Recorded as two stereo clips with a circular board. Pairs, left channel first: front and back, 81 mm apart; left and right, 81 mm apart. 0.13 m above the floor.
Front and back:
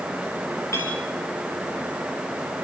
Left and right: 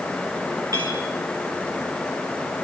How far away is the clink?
About 6.5 m.